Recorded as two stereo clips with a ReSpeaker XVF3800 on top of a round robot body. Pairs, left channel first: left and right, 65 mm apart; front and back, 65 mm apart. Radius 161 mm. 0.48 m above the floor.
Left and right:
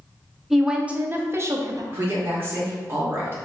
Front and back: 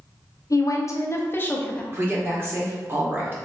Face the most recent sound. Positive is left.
turn(degrees=-135)